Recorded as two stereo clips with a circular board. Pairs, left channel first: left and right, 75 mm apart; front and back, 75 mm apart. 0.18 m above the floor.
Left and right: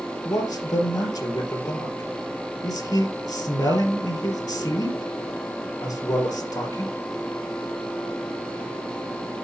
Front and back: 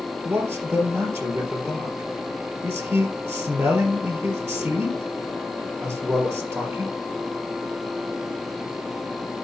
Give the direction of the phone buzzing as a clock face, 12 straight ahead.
No phone buzzing in this recording.